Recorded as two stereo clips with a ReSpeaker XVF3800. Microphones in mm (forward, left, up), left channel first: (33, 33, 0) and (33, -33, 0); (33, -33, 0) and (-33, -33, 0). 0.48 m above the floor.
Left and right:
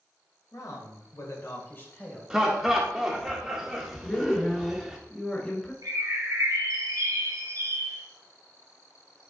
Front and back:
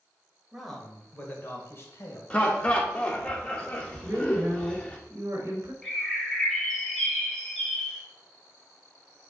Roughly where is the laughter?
Ahead.